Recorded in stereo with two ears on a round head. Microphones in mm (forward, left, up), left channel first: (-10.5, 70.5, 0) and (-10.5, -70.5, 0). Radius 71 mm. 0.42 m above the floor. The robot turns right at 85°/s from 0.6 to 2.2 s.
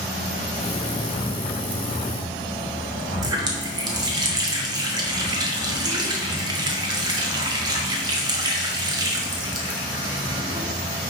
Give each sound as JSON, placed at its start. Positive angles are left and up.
{"t": 3.2, "sound": "a running tap", "side_deg": -30, "distance_m": 1.5}